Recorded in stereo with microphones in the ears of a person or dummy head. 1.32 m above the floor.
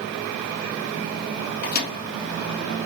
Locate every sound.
1.6 s a microwave: 50° left (ahead or behind), 1.1 m